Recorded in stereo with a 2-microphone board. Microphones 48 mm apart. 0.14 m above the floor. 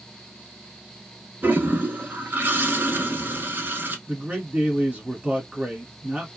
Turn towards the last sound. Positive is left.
turn(degrees=-25)  # may be behind; listen again after turning